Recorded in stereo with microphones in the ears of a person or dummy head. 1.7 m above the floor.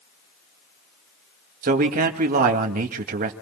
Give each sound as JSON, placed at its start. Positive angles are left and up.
{"t": 1.6, "sound": "a man speaking", "side_deg": -45, "distance_m": 2.5}